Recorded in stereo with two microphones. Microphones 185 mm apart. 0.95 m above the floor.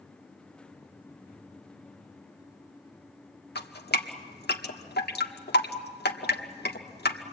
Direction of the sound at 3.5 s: 60° left (ahead or behind).